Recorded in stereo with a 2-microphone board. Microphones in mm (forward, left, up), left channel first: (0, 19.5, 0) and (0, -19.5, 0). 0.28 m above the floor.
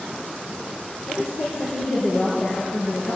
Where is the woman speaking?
65° left (ahead or behind), 4 m.